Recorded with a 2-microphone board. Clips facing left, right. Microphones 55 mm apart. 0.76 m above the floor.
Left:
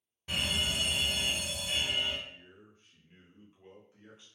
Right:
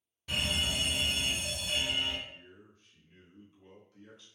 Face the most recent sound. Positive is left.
turn(degrees=20)  # may be behind; listen again after turning